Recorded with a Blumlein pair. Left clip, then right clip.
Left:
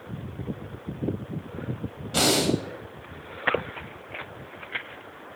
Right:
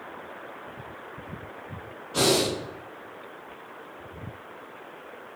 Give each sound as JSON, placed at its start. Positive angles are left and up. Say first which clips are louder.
{"t": 2.1, "sound": "breathing", "louder": "left 1 dB", "azimuth_deg": 35, "distance_m": 0.9}